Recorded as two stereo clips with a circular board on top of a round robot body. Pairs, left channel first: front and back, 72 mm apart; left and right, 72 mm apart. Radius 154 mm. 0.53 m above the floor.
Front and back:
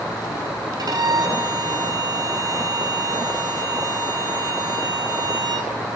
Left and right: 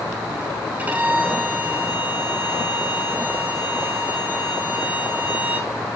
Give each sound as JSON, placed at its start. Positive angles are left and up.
{"t": 0.8, "sound": "a violin", "azimuth_deg": -160, "distance_m": 5.5}